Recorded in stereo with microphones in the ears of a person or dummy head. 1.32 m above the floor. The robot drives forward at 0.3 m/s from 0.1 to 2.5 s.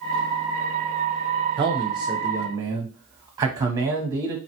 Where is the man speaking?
25° right (ahead or behind), 0.7 m; by 4.4 s 20° right (ahead or behind), 0.9 m.